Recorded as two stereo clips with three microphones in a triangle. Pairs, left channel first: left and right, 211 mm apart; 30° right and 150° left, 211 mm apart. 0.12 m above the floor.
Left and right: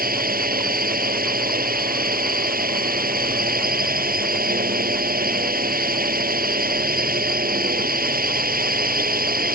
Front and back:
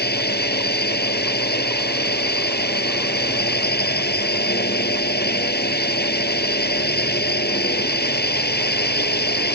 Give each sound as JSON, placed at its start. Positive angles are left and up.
{"t": 0.0, "sound": "a drone", "azimuth_deg": -55}